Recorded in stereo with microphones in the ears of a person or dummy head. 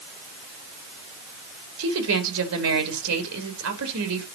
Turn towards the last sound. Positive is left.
turn(degrees=-80)